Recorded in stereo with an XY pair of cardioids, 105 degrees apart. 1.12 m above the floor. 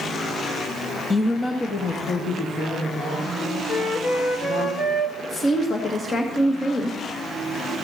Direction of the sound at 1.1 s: 15° left.